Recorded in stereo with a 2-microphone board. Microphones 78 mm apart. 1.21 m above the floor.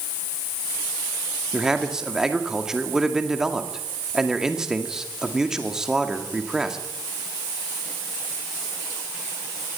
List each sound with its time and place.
1.5 s a man speaking: 10° right (ahead or behind), 2 m